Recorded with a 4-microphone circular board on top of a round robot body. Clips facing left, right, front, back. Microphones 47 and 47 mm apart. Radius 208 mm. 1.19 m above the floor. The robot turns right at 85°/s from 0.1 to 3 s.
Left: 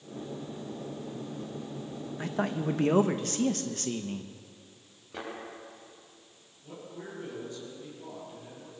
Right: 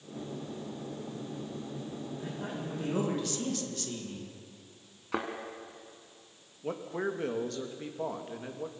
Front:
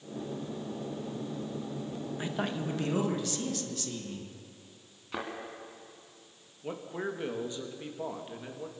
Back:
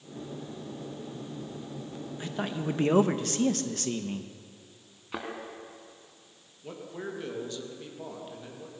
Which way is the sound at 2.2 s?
70° left.